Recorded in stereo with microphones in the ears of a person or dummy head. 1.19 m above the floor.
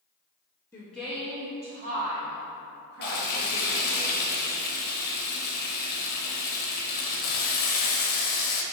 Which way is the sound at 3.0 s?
55° left (ahead or behind).